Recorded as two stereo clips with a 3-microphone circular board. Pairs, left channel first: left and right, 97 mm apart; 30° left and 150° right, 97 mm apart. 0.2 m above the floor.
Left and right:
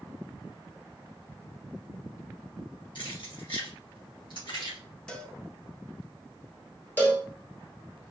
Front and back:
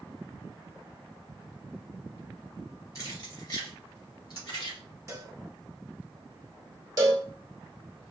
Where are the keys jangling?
75° left, 2 m; by 4.8 s 65° left, 3 m.